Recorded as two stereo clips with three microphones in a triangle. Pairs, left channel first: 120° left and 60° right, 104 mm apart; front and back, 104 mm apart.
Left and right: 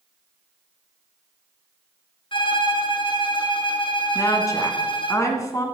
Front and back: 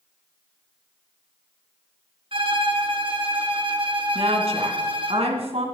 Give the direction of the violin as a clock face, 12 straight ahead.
7 o'clock.